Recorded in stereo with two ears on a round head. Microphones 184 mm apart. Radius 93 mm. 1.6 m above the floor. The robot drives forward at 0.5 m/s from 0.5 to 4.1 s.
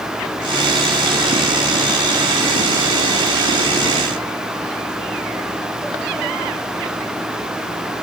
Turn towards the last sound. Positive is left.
No sound to turn to.